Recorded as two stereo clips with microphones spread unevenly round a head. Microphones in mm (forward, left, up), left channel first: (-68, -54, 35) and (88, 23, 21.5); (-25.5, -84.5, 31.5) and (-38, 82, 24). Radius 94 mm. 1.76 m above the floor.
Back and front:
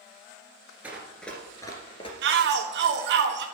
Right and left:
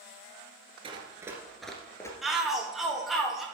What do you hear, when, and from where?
0.8 s running footsteps: 110° left, 1.8 m; by 2.1 s 140° right, 2.0 m
2.2 s a shout: 5° left, 1.6 m